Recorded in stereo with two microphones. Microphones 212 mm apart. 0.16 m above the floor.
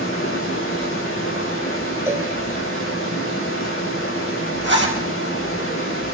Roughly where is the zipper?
Right.